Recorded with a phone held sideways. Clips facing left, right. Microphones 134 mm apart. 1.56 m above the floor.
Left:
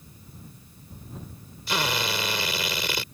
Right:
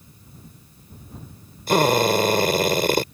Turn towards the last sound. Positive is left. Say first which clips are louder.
# right 11 dB
turn(degrees=-50)  # may be behind; listen again after turning